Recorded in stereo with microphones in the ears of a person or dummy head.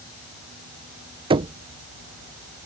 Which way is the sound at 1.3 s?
25° right (ahead or behind).